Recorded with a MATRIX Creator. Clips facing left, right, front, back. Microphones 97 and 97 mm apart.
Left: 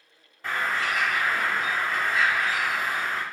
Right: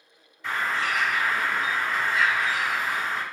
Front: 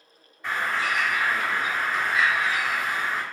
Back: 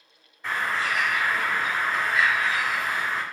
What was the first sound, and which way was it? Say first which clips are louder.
A bird: even, even; 85° left.